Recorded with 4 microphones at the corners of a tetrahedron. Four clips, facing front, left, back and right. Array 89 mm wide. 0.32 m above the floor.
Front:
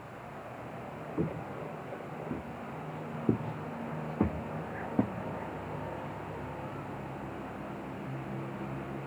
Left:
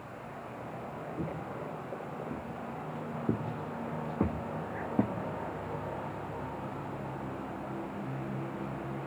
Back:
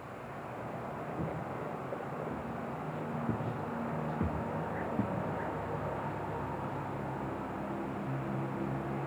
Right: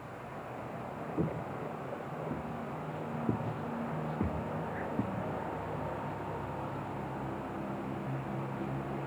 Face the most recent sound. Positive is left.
turn(degrees=45)